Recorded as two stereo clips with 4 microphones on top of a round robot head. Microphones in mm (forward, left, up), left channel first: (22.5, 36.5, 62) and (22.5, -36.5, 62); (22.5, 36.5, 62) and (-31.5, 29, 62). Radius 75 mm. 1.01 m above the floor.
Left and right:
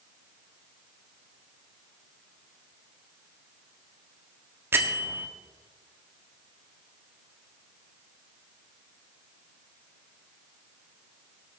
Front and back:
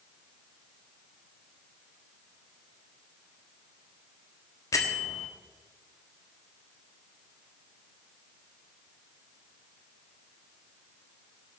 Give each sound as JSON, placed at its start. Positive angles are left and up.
{"t": 4.7, "sound": "a bell", "azimuth_deg": -30, "distance_m": 1.4}